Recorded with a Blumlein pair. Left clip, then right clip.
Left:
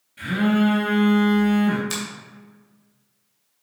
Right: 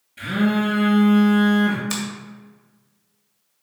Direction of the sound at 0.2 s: 10° right.